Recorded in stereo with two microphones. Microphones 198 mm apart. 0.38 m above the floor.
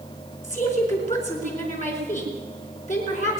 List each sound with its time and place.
0.4 s a woman speaking: 40° left (ahead or behind), 4 m